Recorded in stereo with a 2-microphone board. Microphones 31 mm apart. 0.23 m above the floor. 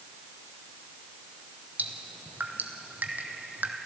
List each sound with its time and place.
1.8 s dripping: 70° right (ahead or behind), 1.8 m